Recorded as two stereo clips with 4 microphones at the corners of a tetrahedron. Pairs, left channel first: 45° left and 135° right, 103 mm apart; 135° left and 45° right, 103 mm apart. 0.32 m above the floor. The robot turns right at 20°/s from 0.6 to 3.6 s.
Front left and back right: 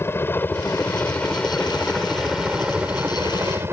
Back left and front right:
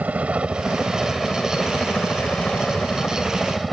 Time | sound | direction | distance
0.0 | a helicopter | 15° left | ?